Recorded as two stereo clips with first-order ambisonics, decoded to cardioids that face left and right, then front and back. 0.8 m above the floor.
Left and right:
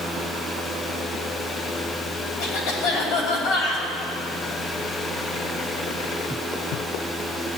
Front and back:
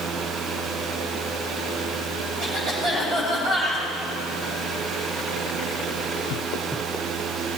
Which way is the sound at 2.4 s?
125° left.